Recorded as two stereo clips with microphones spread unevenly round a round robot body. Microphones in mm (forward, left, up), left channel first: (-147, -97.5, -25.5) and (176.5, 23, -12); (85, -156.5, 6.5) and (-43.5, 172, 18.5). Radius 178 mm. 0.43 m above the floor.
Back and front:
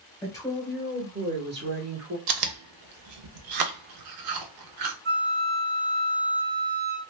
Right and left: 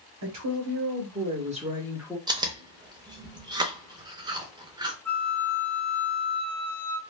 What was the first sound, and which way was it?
A woman speaking, 125° left.